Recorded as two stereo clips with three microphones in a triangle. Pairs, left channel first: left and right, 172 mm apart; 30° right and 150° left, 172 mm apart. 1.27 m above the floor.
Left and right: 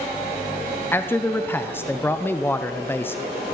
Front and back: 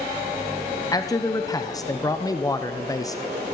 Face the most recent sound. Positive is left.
turn(degrees=20)